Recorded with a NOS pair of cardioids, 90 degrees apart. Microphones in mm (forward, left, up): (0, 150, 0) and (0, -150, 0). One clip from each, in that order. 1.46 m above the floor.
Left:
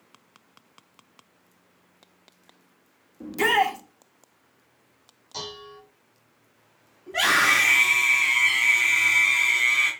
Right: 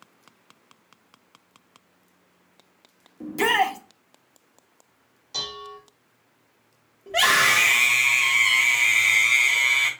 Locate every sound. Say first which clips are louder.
3.2 s a shout: even; 10° right, 1.1 m
5.3 s dishes clattering: right 5 dB; 35° right, 2.5 m
7.1 s a scream: right 1 dB; 60° right, 2.5 m